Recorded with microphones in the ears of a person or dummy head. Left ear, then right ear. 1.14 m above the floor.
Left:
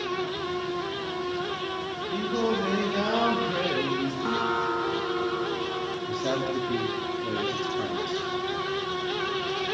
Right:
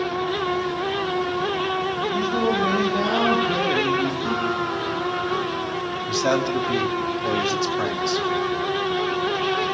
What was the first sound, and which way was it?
Singing, 10° left (ahead or behind).